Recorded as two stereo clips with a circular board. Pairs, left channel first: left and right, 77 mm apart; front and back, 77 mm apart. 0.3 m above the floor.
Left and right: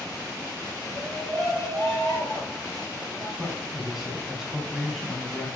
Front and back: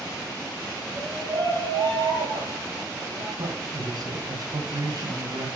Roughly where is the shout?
Behind left.